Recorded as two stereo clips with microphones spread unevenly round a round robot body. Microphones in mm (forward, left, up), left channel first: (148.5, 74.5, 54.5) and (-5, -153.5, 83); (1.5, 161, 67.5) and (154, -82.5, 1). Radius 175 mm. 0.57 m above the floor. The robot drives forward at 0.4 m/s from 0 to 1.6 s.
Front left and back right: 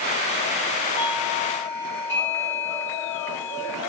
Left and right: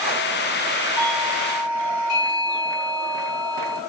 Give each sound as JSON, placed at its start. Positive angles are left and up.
{"t": 1.0, "sound": "a doorbell", "azimuth_deg": 140, "distance_m": 6.0}